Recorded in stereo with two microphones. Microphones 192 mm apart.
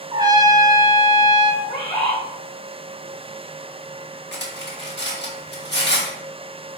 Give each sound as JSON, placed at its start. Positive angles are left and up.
{"t": 0.1, "sound": "a trumpet", "side_deg": -20, "distance_m": 0.6}
{"t": 1.6, "sound": "a bird", "side_deg": 25, "distance_m": 1.8}
{"t": 4.3, "sound": "cutlery clinking", "side_deg": 70, "distance_m": 1.0}